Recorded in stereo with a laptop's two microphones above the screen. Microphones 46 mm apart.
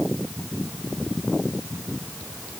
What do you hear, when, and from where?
Only background noise.